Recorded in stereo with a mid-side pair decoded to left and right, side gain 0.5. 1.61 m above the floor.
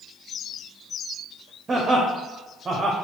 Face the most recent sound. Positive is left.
turn(degrees=-35)